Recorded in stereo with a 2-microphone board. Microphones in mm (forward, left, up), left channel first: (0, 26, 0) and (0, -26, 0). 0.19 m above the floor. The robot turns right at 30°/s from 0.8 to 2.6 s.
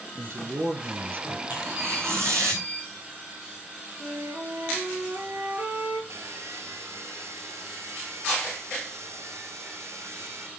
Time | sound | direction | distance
0.1 | a man speaking | 60° right (ahead or behind) | 2.5 m
1.5 | tearing paper | 135° right | 8.5 m
4.0 | a flute | 65° right (ahead or behind) | 3 m
6.1 | sawing | 75° right (ahead or behind) | 1.1 m